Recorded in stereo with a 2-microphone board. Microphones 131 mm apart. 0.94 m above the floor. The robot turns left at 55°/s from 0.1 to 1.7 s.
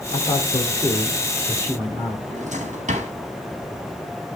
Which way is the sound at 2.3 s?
85° right.